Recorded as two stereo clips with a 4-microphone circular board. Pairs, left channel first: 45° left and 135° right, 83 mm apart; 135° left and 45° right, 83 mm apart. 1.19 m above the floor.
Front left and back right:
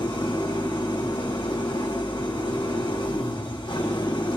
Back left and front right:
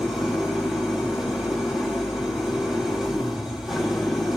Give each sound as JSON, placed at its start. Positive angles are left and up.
{"t": 0.0, "sound": "an engine running", "azimuth_deg": 40, "distance_m": 3.5}